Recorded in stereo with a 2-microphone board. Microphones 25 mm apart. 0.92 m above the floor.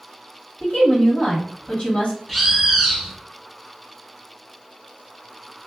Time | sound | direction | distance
0.6 | a woman speaking | 50° left (ahead or behind) | 1.8 m
2.3 | a bird | centre (ahead or behind) | 0.9 m